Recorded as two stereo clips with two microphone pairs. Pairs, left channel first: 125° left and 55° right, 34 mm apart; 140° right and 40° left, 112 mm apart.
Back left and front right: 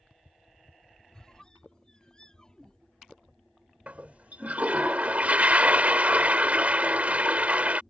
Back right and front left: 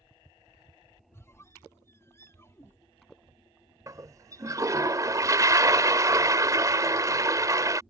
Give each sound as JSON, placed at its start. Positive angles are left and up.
{"t": 1.1, "sound": "a squeak", "azimuth_deg": -175}
{"t": 3.9, "sound": "a toilet flushing", "azimuth_deg": -15}